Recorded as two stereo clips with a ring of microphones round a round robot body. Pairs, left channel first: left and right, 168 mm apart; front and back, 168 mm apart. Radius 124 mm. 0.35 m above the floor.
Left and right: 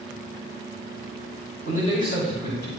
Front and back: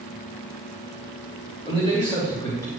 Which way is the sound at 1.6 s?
60° left.